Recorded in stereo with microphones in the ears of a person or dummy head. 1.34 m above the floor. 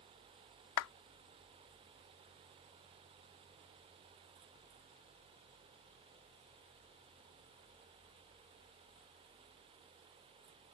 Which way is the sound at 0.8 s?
70° left (ahead or behind).